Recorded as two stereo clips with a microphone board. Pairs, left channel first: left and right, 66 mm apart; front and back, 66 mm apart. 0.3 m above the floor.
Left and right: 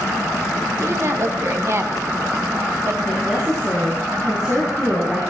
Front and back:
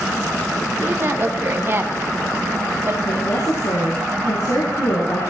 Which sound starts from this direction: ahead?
A woman speaking, at 3.1 s.